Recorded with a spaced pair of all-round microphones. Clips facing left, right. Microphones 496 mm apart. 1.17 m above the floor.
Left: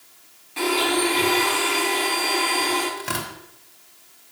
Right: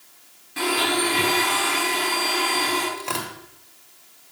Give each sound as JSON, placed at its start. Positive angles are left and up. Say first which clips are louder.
{"t": 0.6, "sound": "a blender", "louder": "left 2 dB", "side_deg": -35, "distance_m": 7.0}
{"t": 3.0, "sound": "tearing paper", "louder": "even", "side_deg": 35, "distance_m": 2.5}